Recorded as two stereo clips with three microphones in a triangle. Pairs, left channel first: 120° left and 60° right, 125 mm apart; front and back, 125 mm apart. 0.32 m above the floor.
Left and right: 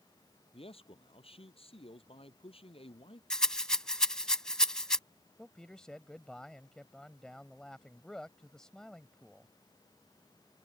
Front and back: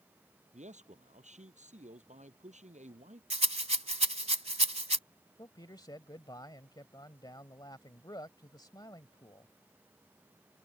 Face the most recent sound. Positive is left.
turn(degrees=40)